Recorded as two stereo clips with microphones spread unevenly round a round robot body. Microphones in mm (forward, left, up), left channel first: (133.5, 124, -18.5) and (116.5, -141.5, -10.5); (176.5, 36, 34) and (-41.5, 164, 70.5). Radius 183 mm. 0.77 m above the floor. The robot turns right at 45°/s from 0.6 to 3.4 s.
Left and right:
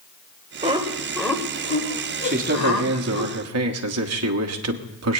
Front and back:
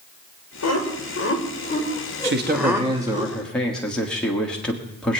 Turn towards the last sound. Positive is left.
turn(degrees=-110)